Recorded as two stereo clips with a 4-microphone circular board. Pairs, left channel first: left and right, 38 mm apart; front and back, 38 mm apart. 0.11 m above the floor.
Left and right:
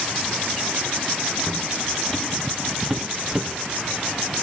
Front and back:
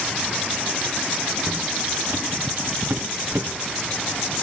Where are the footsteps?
155° left, 2.5 m; by 3.5 s 160° right, 1.6 m.